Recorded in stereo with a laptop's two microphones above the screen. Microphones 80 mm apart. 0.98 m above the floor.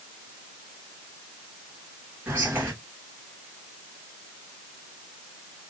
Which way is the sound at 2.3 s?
25° right (ahead or behind).